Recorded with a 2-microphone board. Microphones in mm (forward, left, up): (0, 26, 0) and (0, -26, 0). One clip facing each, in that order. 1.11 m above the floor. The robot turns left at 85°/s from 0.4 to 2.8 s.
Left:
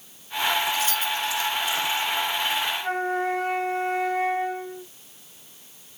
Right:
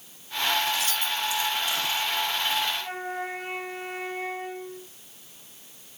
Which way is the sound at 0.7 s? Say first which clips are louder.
Left 3 dB; 70° right (ahead or behind).